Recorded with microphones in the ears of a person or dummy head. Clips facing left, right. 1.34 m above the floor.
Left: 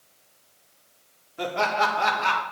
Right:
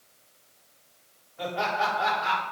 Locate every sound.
1.4 s laughter: 80° left, 4.5 m; by 2.4 s 85° left, 3.5 m